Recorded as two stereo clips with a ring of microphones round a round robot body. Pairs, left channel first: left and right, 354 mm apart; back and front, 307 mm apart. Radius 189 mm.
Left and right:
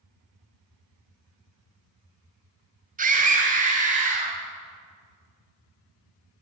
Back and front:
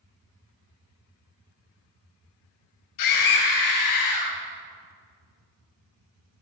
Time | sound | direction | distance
3.0 | a scream | 160° right | 3 m